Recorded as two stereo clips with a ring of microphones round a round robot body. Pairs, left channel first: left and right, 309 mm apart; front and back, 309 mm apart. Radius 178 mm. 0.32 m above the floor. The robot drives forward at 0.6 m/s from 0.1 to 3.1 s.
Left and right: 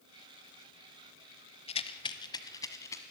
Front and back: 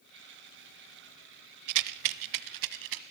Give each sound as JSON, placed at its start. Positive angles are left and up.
{"t": 1.7, "sound": "a rattle", "azimuth_deg": 160, "distance_m": 0.7}